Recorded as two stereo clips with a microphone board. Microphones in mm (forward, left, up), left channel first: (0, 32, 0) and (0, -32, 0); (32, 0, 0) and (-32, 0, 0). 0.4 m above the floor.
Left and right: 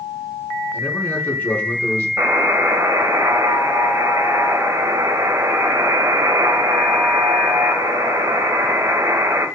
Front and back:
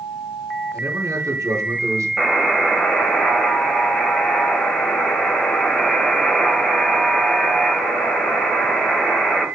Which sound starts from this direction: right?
A buzzer, at 2.2 s.